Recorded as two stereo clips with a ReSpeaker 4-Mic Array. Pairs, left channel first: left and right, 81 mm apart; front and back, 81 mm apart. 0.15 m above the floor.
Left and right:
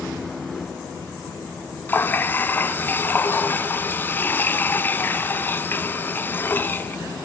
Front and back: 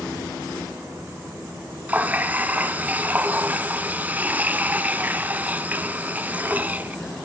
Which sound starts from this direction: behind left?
A running tap, at 1.9 s.